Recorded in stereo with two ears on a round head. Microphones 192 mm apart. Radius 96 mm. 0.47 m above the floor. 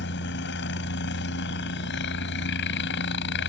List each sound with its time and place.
0.0 s a helicopter: 55° left (ahead or behind)